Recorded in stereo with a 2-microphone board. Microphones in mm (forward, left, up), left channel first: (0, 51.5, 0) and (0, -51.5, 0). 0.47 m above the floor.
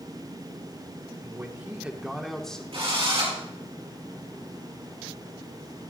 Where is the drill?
65° right (ahead or behind), 6 m.